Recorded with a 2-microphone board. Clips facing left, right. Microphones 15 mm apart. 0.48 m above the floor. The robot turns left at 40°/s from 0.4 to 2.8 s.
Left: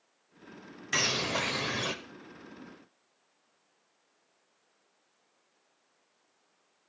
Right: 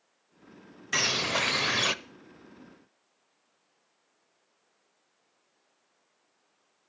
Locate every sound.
0.9 s a bird: 10° right, 0.7 m; by 1.9 s 50° right, 0.7 m